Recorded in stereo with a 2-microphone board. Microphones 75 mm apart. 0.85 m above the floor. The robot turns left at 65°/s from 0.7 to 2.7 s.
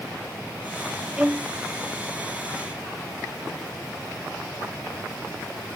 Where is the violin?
10° right (ahead or behind); by 1.5 s 30° right (ahead or behind).